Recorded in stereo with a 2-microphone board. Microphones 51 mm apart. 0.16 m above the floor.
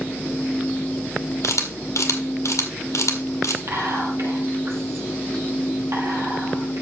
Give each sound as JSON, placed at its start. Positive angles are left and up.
{"t": 1.4, "sound": "a camera shutter", "side_deg": 75, "distance_m": 1.9}
{"t": 3.7, "sound": "whispering", "side_deg": -65, "distance_m": 4.5}